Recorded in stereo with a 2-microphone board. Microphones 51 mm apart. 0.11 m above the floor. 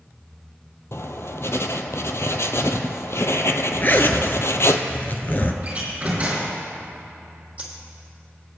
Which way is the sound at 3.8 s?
40° left (ahead or behind).